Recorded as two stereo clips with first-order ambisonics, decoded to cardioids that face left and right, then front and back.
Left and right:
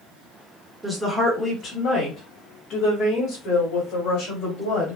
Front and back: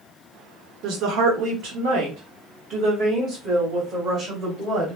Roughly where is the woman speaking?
Behind.